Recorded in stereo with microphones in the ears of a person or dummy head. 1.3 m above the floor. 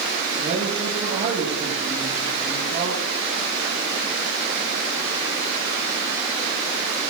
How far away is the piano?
No piano in this recording.